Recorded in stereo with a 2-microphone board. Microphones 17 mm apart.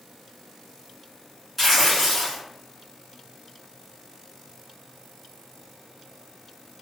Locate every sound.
1.6 s tearing paper: 5° left (ahead or behind), 1.5 m